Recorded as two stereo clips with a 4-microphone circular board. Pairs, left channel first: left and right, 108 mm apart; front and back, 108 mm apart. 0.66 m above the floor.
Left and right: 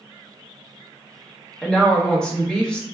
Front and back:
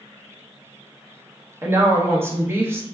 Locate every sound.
1.6 s a woman speaking: 160° left, 0.7 m